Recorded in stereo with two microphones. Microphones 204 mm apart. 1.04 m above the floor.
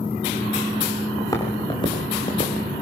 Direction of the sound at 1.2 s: 15° left (ahead or behind).